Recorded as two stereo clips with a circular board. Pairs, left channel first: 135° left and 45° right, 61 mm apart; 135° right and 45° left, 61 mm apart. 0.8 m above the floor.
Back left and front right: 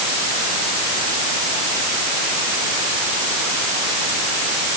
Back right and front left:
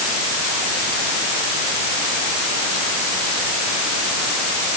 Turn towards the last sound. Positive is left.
No sound to turn to.